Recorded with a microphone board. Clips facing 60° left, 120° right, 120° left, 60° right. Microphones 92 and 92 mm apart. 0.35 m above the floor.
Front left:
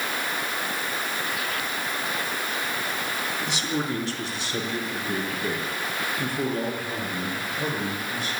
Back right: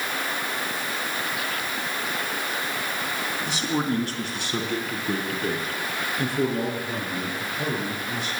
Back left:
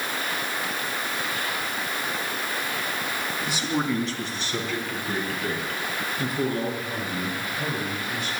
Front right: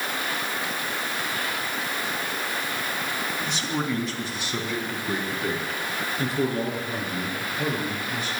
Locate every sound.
3.5 s a man speaking: 160° right, 3 m; by 8.3 s 100° right, 7.5 m